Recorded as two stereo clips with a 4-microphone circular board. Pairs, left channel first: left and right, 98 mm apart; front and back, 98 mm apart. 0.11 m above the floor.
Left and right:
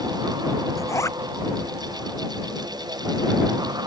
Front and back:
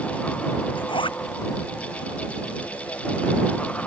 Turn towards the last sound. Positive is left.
turn(degrees=30)